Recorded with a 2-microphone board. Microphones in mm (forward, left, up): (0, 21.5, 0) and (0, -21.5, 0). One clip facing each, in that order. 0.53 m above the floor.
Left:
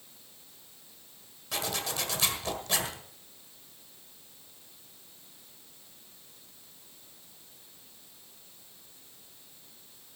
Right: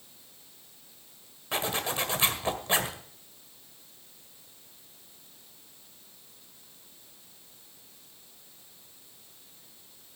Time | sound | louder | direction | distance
1.5 | a zipper | right 4 dB | 25° right (ahead or behind) | 1.7 m